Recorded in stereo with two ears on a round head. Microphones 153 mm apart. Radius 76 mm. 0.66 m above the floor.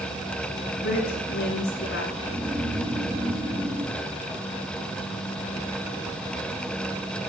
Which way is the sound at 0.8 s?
75° left (ahead or behind).